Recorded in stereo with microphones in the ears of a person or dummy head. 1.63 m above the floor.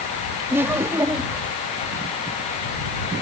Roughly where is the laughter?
Centre.